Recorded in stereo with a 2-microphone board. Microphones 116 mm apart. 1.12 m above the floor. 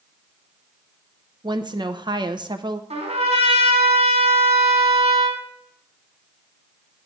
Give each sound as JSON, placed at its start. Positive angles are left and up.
{"t": 1.4, "sound": "a woman speaking", "side_deg": -40, "distance_m": 0.7}
{"t": 2.9, "sound": "a trumpet", "side_deg": -80, "distance_m": 3.0}